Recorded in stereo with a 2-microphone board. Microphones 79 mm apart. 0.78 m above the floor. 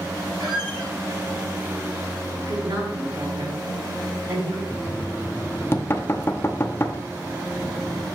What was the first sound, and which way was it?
A squeak, 65° right (ahead or behind).